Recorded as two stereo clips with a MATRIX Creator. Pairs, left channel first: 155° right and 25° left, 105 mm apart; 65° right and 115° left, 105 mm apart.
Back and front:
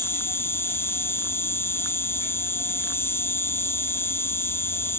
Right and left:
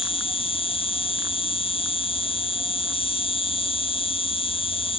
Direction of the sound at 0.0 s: 90° right.